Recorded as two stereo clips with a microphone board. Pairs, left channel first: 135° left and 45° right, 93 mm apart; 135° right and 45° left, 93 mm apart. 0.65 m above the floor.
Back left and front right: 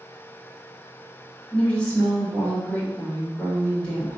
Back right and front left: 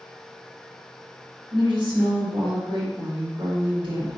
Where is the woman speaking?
55° left, 1.8 m.